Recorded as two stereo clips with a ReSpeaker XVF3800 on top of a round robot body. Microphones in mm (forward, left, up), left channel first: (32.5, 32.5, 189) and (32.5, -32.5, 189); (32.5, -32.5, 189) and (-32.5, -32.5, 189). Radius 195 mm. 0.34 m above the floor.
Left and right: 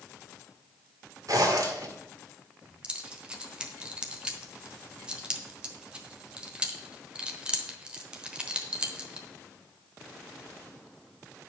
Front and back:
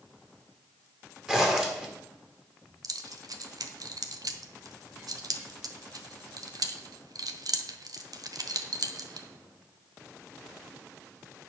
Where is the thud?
No thud in this recording.